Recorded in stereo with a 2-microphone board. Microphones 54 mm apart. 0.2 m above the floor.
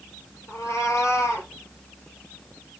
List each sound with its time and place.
0.5 s a cat meowing: 65° left (ahead or behind), 1.9 m; by 1.5 s 75° left (ahead or behind), 2.5 m